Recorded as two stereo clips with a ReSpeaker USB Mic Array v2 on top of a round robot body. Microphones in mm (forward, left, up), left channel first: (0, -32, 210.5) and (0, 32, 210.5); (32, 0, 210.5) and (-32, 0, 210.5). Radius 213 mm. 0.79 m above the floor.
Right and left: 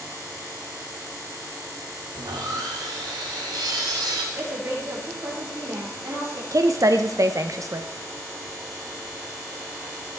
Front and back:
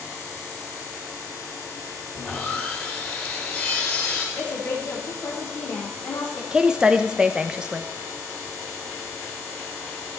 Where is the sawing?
70° left, 0.8 m.